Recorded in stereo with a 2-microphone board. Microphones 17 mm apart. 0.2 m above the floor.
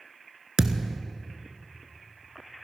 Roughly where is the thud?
Right.